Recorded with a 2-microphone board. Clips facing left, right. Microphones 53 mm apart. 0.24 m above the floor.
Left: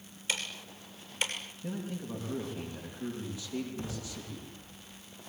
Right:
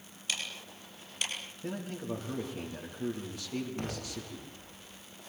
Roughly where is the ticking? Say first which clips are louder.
Left 2 dB; left.